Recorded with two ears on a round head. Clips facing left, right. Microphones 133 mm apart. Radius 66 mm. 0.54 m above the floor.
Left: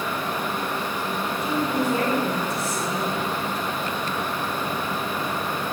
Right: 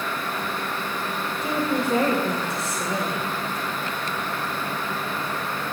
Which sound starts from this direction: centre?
A woman speaking, at 1.4 s.